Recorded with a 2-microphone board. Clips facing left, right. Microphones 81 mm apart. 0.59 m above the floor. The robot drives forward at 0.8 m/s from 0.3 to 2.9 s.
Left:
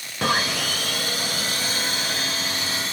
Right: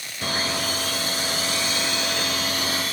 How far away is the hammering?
No hammering in this recording.